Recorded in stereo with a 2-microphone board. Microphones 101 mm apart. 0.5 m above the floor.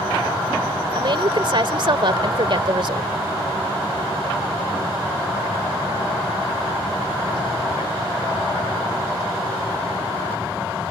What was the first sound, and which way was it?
A woman speaking, 55° right (ahead or behind).